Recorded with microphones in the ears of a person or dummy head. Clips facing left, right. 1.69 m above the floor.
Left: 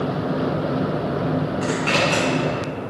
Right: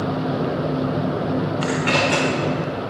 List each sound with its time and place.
1.6 s a zipper: 20° right (ahead or behind), 4 m